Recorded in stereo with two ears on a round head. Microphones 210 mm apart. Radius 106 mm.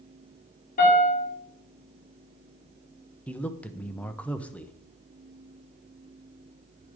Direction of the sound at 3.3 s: 5° left (ahead or behind).